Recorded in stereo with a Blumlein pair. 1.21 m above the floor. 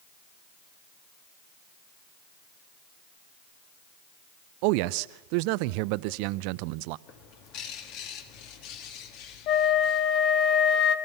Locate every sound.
4.6 s a man speaking: 45° right, 0.6 m
7.1 s a bird: 40° left, 2.5 m
9.5 s a flute: 35° left, 1.3 m